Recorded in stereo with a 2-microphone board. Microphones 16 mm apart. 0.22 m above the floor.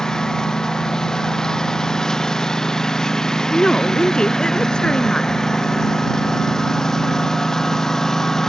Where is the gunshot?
No gunshot in this recording.